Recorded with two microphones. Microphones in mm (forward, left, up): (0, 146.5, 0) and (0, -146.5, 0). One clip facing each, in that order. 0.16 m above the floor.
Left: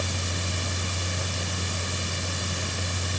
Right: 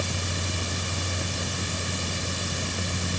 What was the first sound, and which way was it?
Only background noise.